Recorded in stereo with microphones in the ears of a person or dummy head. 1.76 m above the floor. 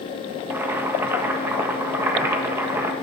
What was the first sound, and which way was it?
Boiling, 15° right (ahead or behind).